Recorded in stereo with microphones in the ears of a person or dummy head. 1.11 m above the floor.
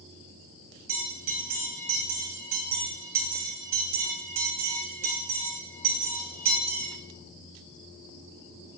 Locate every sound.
0.9 s a bell: 45° right (ahead or behind), 3 m